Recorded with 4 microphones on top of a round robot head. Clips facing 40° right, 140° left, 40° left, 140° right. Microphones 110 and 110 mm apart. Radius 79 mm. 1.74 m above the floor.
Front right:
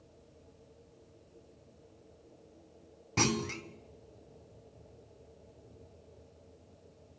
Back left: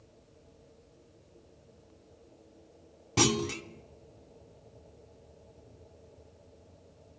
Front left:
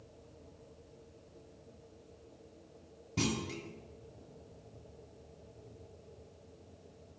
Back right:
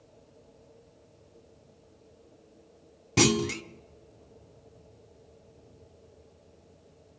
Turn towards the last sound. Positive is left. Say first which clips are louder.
# back left 4 dB, back right 11 dB
turn(degrees=-140)